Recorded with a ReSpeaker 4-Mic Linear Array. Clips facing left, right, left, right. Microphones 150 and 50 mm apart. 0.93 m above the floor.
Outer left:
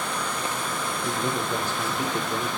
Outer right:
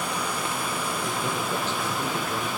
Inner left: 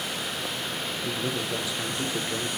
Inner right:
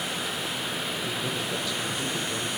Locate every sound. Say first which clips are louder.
1.0 s a man speaking: outer left 4 dB, inner left 1 dB; 10° left (ahead or behind), 0.9 m